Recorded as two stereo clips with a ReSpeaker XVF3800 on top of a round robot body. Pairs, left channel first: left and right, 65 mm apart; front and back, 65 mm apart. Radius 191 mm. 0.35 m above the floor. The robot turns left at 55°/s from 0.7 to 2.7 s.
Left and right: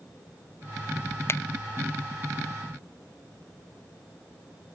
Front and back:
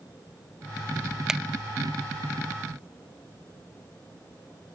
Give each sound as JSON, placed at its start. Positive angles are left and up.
{"t": 1.3, "sound": "a finger snap", "azimuth_deg": 105, "distance_m": 0.8}